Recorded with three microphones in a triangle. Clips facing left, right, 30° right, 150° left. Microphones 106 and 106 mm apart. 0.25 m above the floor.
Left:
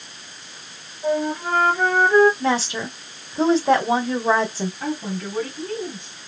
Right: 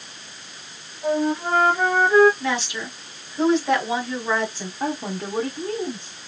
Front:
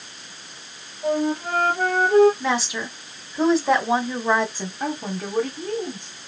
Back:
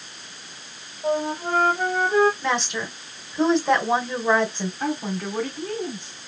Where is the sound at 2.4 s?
55° left, 1.8 m.